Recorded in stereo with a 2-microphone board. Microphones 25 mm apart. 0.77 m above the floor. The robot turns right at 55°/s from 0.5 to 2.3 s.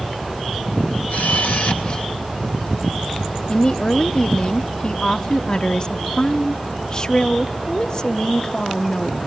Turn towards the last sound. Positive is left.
turn(degrees=30)  # may be behind; listen again after turning